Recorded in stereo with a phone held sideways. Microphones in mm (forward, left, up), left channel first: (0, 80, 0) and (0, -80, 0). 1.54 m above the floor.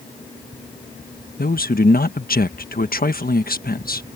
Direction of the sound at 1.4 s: 75° left (ahead or behind).